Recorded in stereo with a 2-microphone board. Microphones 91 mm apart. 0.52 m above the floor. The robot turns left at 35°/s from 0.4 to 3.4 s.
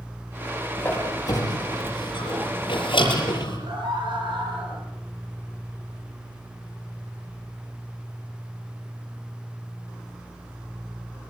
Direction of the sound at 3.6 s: 60° right (ahead or behind).